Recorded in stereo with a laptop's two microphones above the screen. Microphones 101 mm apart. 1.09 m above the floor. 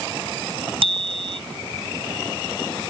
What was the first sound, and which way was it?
A bicycle bell, 65° right (ahead or behind).